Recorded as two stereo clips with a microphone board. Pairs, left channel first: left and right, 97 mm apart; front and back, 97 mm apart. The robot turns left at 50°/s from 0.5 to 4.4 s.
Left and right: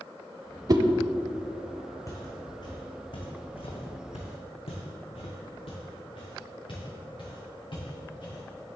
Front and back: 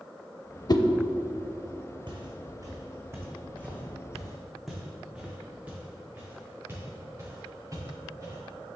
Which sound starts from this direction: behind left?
Footsteps, at 2.1 s.